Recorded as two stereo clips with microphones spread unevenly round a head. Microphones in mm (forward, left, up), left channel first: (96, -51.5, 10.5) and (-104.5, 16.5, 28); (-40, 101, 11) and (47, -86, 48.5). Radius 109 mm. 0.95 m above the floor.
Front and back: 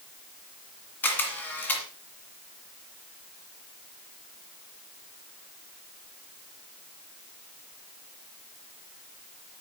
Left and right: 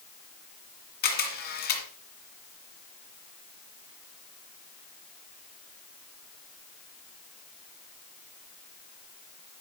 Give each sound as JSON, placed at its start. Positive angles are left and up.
{"t": 1.0, "sound": "a camera shutter", "azimuth_deg": 65, "distance_m": 2.0}